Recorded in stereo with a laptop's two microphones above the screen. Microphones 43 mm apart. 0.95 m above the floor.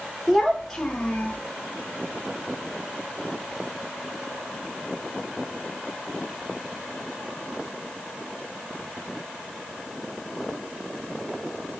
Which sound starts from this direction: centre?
A child speaking, at 0.3 s.